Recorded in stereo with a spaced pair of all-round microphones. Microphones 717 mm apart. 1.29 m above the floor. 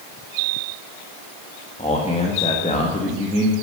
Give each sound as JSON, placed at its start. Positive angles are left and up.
{"t": 1.8, "sound": "a man speaking", "side_deg": 10, "distance_m": 1.7}